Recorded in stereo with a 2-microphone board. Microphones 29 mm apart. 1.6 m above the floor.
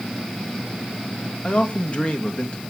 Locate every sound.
1.4 s a man speaking: 45° left (ahead or behind), 2 m